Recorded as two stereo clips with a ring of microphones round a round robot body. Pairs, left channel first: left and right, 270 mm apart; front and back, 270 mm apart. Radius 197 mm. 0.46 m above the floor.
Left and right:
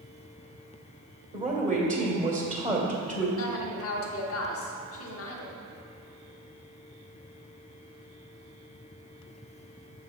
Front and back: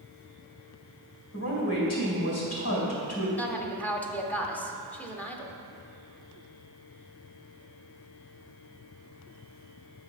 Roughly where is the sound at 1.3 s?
Ahead right.